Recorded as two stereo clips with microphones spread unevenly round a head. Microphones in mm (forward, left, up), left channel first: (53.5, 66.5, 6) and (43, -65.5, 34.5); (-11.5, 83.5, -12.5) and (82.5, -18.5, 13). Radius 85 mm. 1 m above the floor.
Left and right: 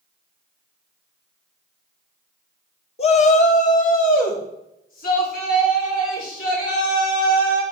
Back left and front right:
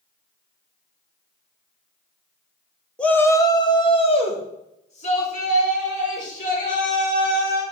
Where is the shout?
55° left, 1.2 m; by 7.6 s 110° left, 5.5 m.